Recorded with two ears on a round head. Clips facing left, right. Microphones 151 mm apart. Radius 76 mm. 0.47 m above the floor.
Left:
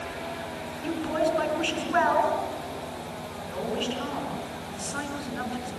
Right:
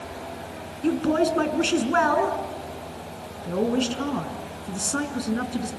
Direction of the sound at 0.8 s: 55° right (ahead or behind).